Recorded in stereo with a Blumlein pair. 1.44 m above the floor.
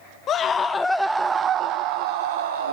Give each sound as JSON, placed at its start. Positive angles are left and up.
{"t": 0.3, "sound": "a scream", "azimuth_deg": 25, "distance_m": 1.0}